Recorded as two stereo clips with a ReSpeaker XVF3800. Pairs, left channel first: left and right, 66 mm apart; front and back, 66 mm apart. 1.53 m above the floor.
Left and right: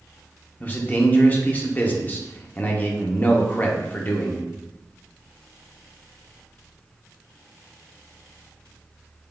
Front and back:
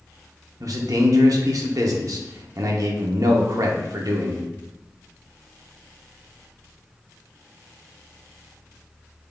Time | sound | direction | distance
0.6 | a man speaking | 150° left | 0.8 m